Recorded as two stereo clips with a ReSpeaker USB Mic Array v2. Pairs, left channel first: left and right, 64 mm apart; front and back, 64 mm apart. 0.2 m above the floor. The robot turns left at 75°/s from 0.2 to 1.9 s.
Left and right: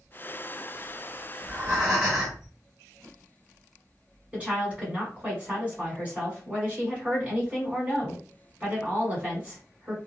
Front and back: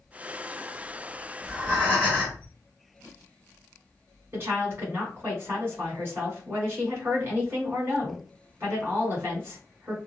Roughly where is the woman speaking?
Behind right.